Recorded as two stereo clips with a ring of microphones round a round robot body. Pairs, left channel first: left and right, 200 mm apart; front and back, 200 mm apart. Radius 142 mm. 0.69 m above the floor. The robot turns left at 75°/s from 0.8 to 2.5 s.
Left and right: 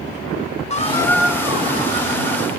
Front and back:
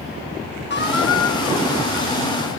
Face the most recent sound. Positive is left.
turn(degrees=-95)